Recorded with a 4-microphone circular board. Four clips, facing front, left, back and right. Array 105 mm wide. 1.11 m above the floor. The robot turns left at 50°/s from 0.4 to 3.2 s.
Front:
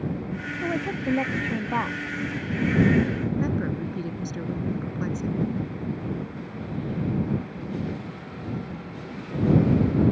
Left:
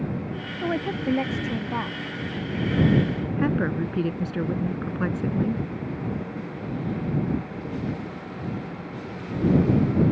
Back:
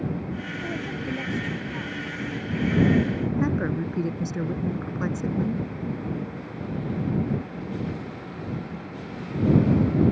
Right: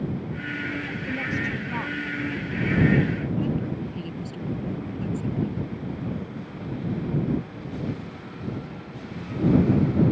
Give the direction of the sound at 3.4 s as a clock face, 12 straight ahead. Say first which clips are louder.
Left 3 dB, back 2 dB; 8 o'clock.